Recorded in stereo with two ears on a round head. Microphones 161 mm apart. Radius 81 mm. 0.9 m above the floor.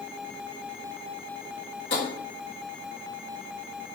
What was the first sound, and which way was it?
Tapping, 70° left (ahead or behind).